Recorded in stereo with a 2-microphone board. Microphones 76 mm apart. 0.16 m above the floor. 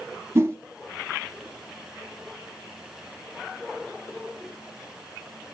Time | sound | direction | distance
0.3 | a whoosh | 35° right (ahead or behind) | 1.9 m